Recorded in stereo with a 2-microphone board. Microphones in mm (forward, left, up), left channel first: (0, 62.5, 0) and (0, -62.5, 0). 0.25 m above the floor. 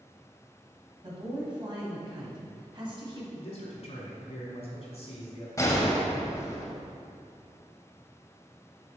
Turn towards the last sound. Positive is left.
turn(degrees=25)  # may be behind; listen again after turning